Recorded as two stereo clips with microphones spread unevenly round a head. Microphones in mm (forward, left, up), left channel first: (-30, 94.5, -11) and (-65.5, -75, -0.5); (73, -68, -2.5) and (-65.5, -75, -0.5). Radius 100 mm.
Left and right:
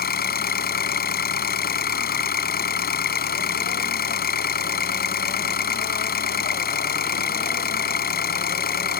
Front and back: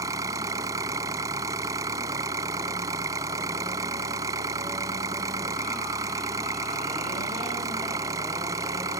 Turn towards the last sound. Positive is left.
turn(degrees=110)